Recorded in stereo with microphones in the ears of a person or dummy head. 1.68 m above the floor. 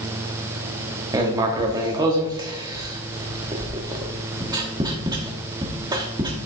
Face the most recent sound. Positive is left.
turn(degrees=-20)  # may be behind; listen again after turning